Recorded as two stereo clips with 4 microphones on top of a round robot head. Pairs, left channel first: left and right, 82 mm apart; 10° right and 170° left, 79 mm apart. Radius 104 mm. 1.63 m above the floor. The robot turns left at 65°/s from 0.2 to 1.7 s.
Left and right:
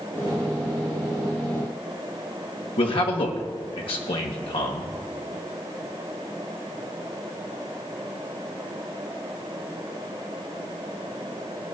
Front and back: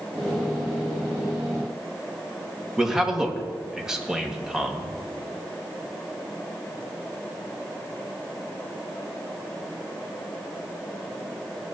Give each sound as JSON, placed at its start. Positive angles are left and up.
{"t": 2.8, "sound": "a man speaking", "azimuth_deg": 90, "distance_m": 1.4}